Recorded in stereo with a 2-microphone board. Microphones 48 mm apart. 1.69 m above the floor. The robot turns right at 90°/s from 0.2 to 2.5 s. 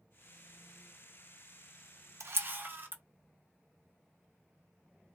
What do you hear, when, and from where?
2.2 s a camera shutter: 70° right (ahead or behind), 0.5 m; by 3.0 s 45° right (ahead or behind), 0.5 m